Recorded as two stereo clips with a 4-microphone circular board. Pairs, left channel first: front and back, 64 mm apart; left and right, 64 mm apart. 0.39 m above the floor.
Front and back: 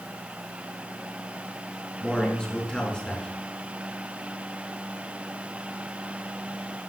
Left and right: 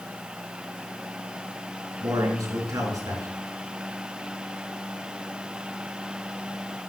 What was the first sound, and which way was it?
A man speaking, 80° right.